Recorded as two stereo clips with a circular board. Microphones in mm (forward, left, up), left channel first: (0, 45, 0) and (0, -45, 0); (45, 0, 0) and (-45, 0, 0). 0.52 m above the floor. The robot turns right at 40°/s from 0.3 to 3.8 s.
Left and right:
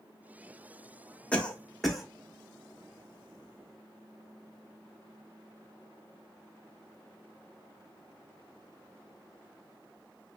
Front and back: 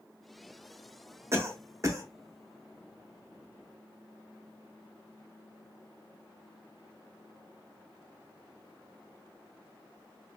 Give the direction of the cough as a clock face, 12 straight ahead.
7 o'clock.